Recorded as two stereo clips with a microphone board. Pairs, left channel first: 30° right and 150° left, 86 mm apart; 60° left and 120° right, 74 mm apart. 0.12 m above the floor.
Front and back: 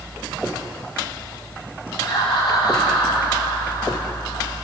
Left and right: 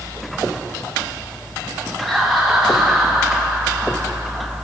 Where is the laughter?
30° right, 5 m; by 4.5 s 35° right, 6 m.